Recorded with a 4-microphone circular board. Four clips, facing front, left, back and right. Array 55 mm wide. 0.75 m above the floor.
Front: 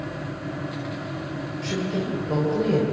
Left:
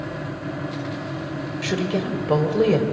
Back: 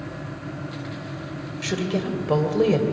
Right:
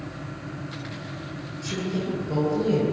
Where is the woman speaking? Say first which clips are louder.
Left 4 dB, back 2 dB; 120° left, 3.5 m.